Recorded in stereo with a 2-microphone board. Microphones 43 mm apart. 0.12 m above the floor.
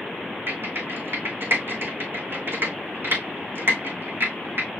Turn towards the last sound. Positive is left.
turn(degrees=-55)  # may be behind; listen again after turning